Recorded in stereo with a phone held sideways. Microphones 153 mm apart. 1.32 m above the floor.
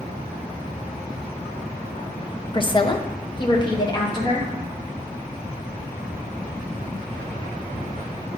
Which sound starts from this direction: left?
A woman speaking, at 2.5 s.